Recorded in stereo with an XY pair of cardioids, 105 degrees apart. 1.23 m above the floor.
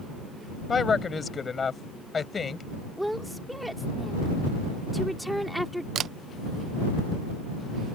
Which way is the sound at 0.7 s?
35° left.